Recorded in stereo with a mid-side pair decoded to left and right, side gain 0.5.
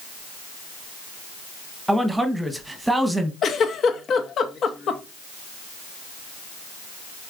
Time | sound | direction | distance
1.9 | a man speaking | 10° right | 0.9 m
3.4 | a giggle | 50° left | 0.8 m